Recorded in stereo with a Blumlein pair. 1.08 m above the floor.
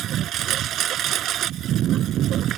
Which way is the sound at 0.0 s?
30° right.